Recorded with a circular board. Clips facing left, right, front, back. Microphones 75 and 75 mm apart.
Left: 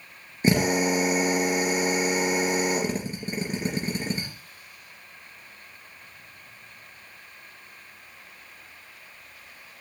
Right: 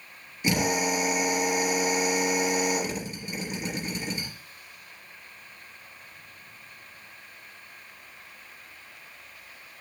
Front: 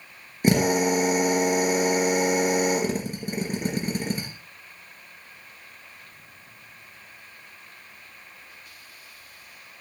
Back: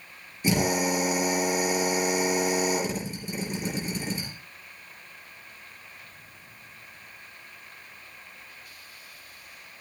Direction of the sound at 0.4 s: 40° left.